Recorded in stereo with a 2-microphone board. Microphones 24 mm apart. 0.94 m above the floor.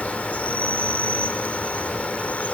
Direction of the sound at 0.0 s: 85° left.